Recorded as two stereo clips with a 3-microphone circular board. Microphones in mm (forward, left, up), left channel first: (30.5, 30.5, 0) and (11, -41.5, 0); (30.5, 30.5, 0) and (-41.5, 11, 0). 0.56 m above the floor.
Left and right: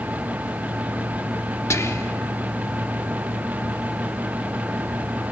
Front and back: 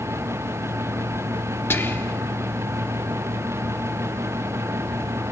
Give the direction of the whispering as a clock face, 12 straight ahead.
10 o'clock.